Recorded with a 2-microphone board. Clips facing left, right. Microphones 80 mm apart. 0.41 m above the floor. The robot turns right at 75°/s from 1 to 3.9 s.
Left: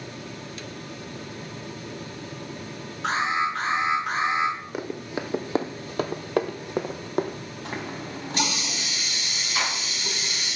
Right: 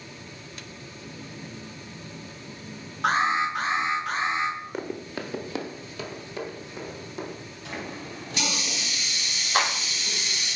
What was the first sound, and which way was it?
An alarm, 55° right.